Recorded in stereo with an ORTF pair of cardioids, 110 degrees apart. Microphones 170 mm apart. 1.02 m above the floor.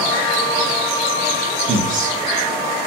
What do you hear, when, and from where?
1.7 s a man speaking: 55° right, 0.6 m